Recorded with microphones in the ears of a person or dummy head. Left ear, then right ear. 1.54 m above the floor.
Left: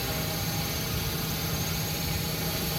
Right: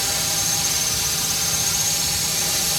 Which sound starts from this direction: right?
A drone, at 0.0 s.